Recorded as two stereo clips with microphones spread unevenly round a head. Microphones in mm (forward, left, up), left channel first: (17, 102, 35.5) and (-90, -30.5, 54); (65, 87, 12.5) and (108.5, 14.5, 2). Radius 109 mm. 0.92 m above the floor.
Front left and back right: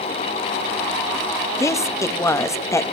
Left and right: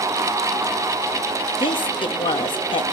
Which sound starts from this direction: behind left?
A woman speaking, at 1.6 s.